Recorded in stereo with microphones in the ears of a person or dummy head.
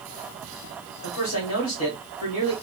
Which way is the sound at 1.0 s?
80° left.